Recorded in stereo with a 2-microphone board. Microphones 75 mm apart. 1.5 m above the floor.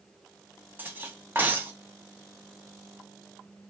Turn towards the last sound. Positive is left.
turn(degrees=-25)  # may be behind; listen again after turning